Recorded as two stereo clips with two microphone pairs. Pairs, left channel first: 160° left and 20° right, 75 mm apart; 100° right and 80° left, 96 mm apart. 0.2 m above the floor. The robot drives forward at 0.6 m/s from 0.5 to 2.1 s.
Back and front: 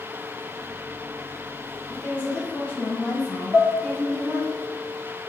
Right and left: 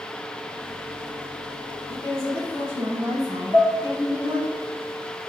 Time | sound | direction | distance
1.9 | a woman speaking | 100° left | 1.3 m
3.5 | dishes clattering | 105° right | 1.5 m